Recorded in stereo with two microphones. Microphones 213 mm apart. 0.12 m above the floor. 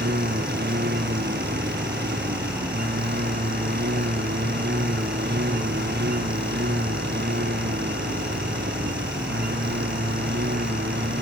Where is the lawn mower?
50° right (ahead or behind); by 11.2 s 55° right (ahead or behind).